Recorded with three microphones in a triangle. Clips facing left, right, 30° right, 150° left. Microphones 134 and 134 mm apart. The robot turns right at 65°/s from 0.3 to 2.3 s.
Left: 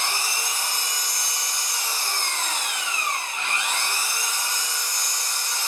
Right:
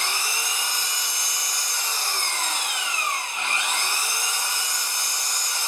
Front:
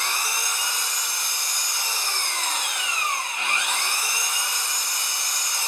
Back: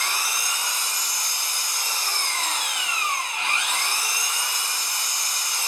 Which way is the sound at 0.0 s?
65° left.